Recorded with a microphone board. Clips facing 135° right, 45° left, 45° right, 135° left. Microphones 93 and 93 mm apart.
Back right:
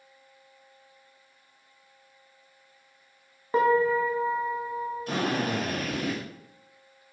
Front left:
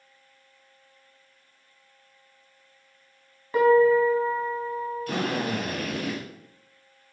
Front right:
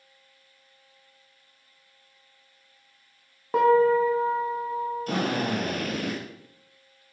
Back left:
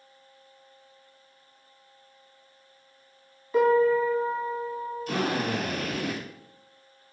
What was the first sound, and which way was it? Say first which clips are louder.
A piano: front left 5 dB, front right 2 dB; 75° right.